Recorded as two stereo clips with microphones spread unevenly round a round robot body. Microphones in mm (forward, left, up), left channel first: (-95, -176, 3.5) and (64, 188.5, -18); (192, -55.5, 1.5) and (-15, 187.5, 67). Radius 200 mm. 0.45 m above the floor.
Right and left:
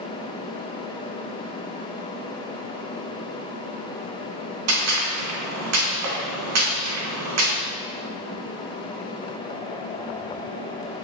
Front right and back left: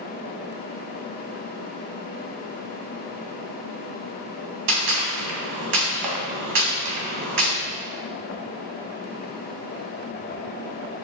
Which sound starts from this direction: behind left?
A gunshot, at 4.7 s.